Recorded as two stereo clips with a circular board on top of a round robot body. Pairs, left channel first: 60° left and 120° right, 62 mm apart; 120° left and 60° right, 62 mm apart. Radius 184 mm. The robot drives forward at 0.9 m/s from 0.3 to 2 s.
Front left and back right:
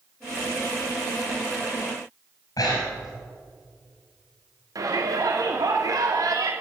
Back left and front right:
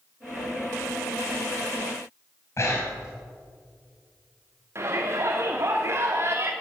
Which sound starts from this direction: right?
A shout, at 4.8 s.